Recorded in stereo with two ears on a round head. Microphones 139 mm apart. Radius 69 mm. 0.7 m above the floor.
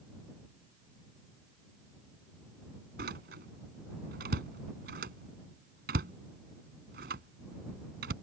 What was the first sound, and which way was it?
A door slam, 70° right (ahead or behind).